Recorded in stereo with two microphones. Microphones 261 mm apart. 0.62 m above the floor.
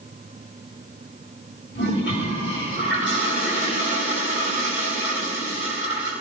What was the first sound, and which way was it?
A toilet flushing, 45° left (ahead or behind).